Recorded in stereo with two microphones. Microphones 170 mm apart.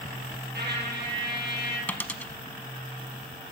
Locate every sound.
0.5 s a trumpet: 85° right, 5.5 m
1.9 s a dropped coin: 10° left (ahead or behind), 0.7 m